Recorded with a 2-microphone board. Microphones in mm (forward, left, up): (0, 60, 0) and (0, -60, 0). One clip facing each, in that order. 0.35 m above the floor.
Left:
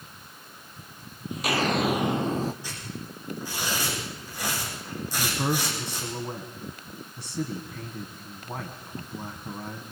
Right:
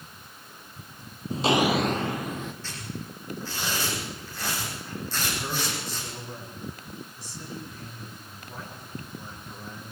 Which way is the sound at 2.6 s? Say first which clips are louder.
Even; 15° left (ahead or behind).